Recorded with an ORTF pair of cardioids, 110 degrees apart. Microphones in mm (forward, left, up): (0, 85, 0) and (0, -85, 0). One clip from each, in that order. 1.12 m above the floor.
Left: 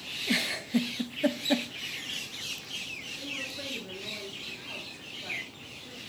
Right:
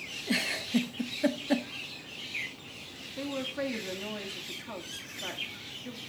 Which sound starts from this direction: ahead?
A giggle, at 0.3 s.